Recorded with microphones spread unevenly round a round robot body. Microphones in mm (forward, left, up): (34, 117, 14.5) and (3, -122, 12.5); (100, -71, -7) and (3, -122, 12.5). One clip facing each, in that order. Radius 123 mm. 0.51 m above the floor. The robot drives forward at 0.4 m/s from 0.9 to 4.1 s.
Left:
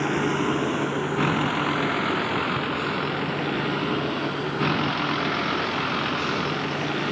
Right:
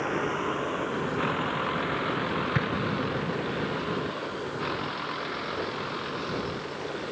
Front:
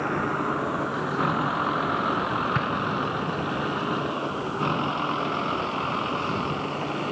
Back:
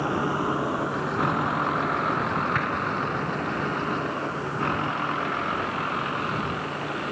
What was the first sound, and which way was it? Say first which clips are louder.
A vehicle: left 6 dB, back 1 dB; 120° left.